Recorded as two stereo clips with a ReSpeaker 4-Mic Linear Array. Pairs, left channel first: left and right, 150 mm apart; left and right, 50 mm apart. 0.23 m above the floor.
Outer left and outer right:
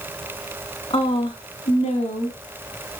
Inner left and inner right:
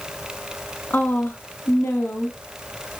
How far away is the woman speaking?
About 2 m.